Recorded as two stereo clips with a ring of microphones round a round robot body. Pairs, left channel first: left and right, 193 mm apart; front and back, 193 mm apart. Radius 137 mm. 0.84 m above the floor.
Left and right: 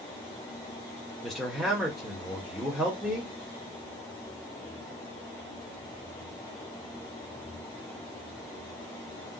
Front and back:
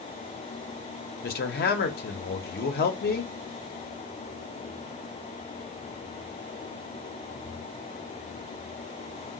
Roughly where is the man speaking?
Ahead.